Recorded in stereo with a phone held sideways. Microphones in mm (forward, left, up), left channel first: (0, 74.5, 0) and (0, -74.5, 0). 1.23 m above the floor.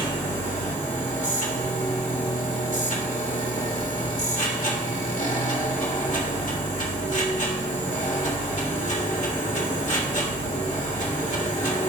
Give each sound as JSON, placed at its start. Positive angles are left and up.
{"t": 0.0, "sound": "a machine running", "side_deg": 60, "distance_m": 1.4}